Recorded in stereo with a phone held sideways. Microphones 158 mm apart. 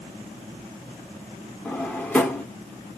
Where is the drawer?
10° left (ahead or behind), 1.1 m.